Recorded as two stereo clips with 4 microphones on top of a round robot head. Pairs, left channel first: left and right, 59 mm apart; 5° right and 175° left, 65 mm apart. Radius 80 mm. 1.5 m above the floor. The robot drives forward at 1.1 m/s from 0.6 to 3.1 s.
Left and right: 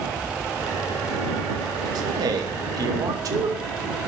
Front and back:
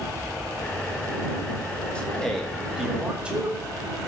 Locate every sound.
1.9 s a man speaking: 85° right, 2.5 m; by 3.5 s 110° right, 3 m